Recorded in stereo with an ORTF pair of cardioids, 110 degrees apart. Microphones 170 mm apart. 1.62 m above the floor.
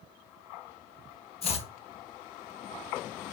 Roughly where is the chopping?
Ahead left.